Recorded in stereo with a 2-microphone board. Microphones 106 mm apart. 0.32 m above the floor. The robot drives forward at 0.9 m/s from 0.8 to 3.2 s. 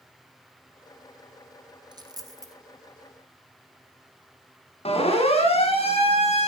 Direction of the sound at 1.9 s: 40° right (ahead or behind).